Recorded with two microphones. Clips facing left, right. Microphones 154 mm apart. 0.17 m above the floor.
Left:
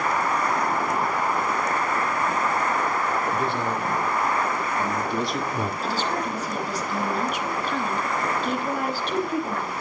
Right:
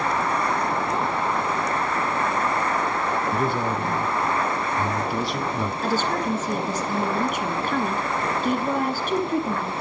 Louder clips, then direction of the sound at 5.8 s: Right 3 dB; 45° right (ahead or behind).